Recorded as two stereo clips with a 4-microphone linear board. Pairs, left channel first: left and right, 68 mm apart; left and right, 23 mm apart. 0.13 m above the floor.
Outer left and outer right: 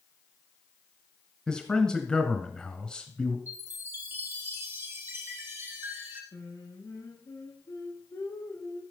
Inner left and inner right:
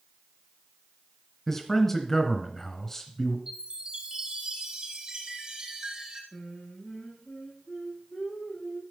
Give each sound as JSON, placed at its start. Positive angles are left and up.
{"t": 1.5, "sound": "a man speaking", "side_deg": 15, "distance_m": 1.8}
{"t": 3.5, "sound": "a chime", "side_deg": -30, "distance_m": 5.0}
{"t": 6.3, "sound": "singing", "side_deg": 75, "distance_m": 5.5}